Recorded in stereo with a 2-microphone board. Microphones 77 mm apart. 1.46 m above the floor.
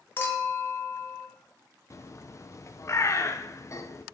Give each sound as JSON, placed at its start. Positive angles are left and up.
{"t": 0.2, "sound": "a clink", "side_deg": 30, "distance_m": 1.1}
{"t": 1.9, "sound": "a bird", "side_deg": 40, "distance_m": 0.5}